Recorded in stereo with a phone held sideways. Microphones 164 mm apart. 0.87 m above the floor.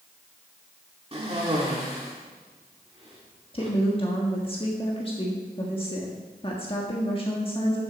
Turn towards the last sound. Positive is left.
turn(degrees=35)  # may be behind; listen again after turning